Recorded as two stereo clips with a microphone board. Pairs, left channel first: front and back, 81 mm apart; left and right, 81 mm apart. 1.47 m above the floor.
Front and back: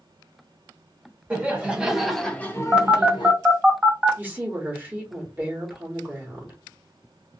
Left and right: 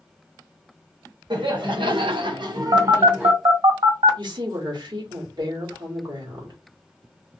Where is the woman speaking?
110° right, 1.2 m.